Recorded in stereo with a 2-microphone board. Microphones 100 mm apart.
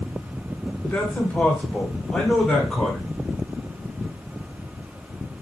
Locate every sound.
0.8 s a man speaking: 20° left (ahead or behind), 1.5 m; by 3.1 s 5° left (ahead or behind), 1.4 m